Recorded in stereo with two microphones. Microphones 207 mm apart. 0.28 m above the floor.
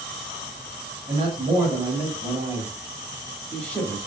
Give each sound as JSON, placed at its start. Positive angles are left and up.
{"t": 1.1, "sound": "a man speaking", "side_deg": -35, "distance_m": 1.4}